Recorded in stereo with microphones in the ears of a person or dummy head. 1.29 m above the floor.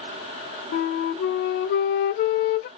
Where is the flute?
60° left (ahead or behind), 0.6 m.